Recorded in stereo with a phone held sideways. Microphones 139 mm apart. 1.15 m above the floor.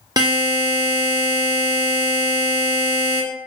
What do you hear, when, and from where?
0.2 s a buzzer: 30° right (ahead or behind), 0.7 m